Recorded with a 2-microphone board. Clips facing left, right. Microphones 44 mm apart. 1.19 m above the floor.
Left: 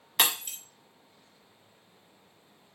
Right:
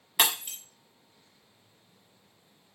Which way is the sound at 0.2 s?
10° right (ahead or behind).